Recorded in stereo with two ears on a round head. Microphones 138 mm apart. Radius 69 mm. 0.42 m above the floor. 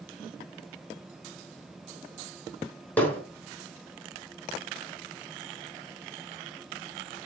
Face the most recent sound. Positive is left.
turn(degrees=10)  # may be behind; listen again after turning